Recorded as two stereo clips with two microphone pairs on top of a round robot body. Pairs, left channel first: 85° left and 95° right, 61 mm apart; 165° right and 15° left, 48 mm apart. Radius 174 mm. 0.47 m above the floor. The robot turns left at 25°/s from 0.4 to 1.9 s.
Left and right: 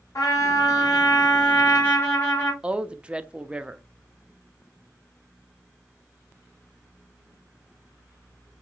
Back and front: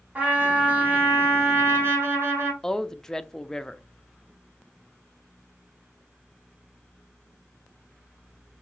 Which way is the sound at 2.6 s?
140° right.